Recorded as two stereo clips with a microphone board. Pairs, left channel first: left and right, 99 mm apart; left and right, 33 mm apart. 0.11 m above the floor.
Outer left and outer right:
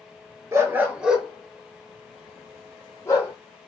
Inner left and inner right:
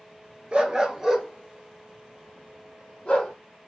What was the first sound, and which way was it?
A dog barking, 30° right (ahead or behind).